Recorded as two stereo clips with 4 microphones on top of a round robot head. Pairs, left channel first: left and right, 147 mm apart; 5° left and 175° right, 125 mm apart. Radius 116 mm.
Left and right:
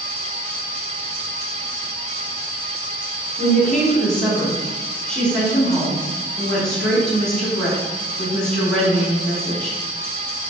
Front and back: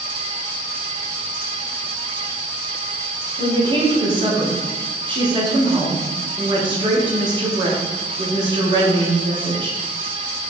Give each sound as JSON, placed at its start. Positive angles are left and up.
{"t": 3.4, "sound": "a woman speaking", "azimuth_deg": 175, "distance_m": 1.3}